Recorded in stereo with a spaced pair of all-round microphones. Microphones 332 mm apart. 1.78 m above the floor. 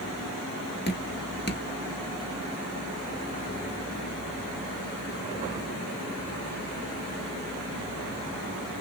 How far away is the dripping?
About 1.2 m.